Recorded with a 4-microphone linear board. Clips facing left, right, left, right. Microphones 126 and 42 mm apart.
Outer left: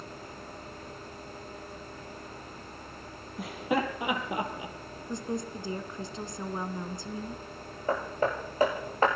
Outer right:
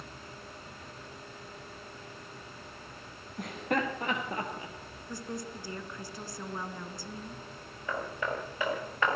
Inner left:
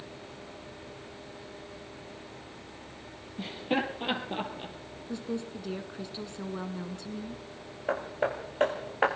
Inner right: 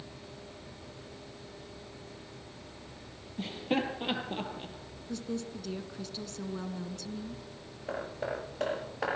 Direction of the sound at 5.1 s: 20° left (ahead or behind).